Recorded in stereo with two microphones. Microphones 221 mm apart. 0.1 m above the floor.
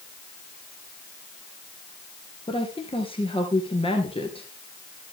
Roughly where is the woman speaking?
Left.